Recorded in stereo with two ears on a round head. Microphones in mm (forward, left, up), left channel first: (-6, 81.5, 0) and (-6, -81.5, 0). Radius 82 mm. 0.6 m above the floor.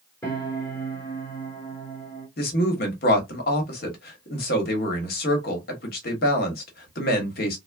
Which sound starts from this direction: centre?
A piano, at 0.2 s.